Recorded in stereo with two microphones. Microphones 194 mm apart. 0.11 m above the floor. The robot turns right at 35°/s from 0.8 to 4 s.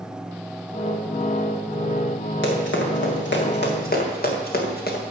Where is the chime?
I don't hear a chime.